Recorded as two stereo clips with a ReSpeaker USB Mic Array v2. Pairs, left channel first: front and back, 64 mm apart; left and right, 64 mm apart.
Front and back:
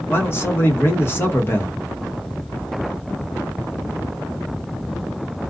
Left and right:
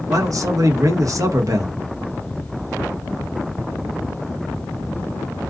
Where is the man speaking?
55° right, 1.1 m.